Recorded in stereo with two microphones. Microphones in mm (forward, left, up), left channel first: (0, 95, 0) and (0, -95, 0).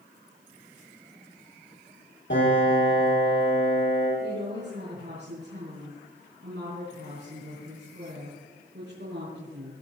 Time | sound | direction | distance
2.3 | a piano | 70° left (ahead or behind) | 6 m
4.2 | a woman speaking | 65° right (ahead or behind) | 5 m